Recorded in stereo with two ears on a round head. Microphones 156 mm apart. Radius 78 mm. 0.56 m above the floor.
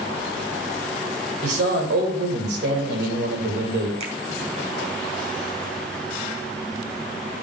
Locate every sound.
1.4 s a man speaking: 65° right (ahead or behind), 2.5 m
4.0 s a finger snap: 35° right (ahead or behind), 1.9 m